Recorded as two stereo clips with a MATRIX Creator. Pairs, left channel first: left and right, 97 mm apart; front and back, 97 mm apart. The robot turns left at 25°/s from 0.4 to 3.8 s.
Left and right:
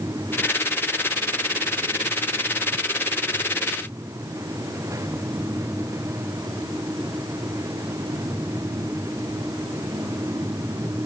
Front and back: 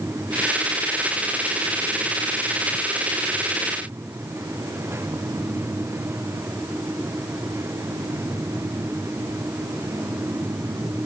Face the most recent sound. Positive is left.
No sound to turn to.